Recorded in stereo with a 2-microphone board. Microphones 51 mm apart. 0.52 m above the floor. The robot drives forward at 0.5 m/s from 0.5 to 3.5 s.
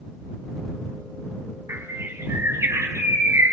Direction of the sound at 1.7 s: 65° right (ahead or behind).